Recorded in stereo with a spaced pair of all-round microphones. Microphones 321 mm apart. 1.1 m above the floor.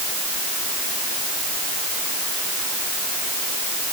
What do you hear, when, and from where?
Only background noise.